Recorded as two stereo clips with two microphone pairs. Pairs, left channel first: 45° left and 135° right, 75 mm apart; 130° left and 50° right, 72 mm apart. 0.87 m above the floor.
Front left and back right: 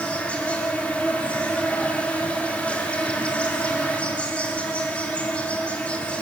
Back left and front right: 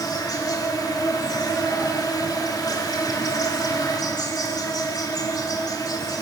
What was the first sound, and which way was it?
An insect, 120° left.